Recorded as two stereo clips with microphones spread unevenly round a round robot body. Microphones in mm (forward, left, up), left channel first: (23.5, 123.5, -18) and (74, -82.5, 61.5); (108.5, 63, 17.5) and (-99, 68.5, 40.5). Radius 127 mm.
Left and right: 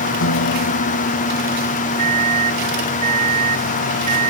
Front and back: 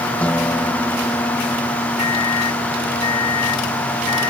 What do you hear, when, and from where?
0.2 s a guitar: 85° left
2.0 s a microwave: 20° right